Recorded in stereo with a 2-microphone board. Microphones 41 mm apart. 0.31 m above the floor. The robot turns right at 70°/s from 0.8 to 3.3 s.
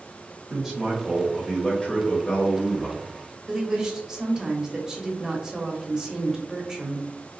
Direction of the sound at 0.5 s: 15° right (ahead or behind).